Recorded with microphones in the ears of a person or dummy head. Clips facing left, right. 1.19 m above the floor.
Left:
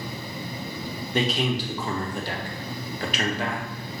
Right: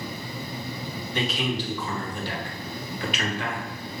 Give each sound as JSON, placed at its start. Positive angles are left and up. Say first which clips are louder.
{"t": 1.1, "sound": "a man speaking", "louder": "left 3 dB", "side_deg": 35, "distance_m": 1.1}